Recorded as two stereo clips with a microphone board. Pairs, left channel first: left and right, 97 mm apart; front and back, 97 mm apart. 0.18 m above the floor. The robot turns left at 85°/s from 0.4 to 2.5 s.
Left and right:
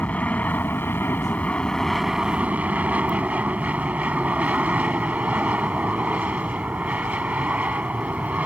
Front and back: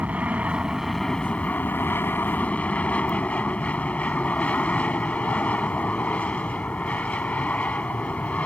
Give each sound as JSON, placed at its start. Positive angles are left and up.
{"t": 0.0, "sound": "an aircraft", "azimuth_deg": 135}